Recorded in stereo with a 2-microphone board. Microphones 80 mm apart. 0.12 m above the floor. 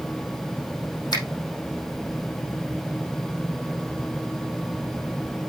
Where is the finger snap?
55° left (ahead or behind), 4.5 m.